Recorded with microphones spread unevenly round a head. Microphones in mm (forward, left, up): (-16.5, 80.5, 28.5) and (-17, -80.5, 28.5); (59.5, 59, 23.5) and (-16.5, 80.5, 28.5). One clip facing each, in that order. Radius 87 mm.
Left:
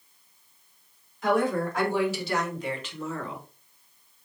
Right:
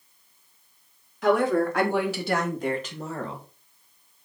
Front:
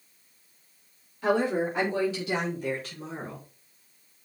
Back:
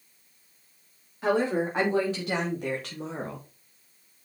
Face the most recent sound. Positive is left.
turn(degrees=-155)